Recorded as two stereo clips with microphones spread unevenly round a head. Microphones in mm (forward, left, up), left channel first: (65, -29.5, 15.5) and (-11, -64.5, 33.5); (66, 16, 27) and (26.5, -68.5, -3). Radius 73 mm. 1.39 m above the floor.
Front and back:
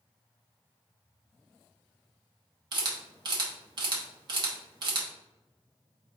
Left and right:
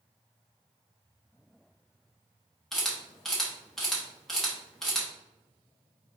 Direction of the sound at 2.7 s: 160° left.